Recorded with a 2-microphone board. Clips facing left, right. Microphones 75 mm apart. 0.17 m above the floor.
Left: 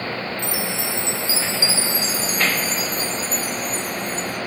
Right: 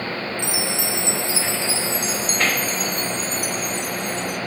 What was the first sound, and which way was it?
A chime, 65° right (ahead or behind).